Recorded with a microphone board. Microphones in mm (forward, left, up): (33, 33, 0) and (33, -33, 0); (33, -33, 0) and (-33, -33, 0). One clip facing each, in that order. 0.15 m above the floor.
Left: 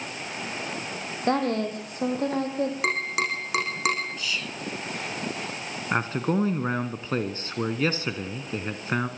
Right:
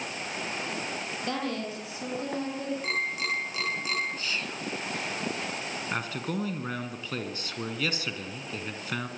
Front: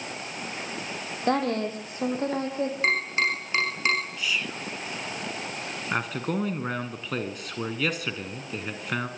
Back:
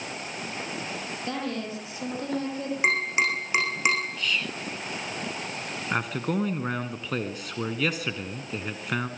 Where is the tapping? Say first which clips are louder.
Left 4 dB, back 3 dB; 105° left, 7.5 m.